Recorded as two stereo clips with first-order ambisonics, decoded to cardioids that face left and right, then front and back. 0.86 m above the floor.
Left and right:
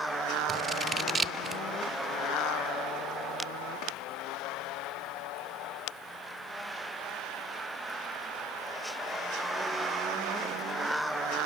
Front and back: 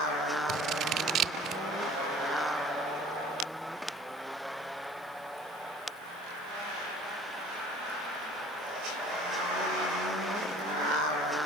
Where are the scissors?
155° right, 0.5 m.